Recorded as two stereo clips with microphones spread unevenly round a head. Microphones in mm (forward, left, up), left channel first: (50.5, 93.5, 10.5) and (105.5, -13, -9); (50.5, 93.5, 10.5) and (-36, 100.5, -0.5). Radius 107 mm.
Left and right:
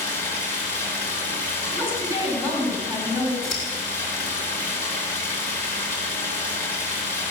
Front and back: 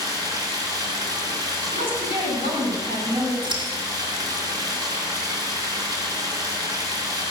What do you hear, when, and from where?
0.0 s running water: 130° left, 5.5 m
1.7 s a woman speaking: straight behind, 6.5 m
3.4 s scissors: 150° left, 4.5 m